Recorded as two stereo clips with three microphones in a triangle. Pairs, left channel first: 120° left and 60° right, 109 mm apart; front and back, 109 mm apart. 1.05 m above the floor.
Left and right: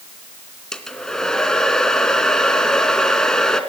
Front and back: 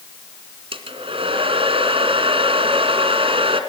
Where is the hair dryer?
155° right, 2.5 m.